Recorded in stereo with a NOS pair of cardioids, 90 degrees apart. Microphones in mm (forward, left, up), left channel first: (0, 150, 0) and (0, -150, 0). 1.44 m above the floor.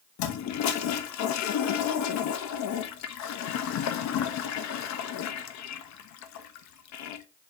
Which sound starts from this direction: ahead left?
A toilet flushing, at 0.2 s.